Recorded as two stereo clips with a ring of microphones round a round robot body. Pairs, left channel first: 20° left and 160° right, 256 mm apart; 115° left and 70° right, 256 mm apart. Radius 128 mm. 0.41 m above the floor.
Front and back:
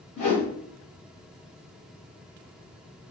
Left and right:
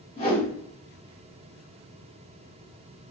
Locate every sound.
0.2 s a whoosh: 45° left, 1.5 m